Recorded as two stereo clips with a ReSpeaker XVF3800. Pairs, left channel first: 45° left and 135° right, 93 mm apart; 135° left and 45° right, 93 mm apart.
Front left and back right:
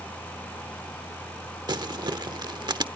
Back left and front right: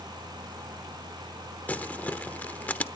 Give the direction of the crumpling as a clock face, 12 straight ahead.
5 o'clock.